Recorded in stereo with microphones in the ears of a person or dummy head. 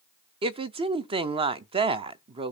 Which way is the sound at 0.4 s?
30° right (ahead or behind).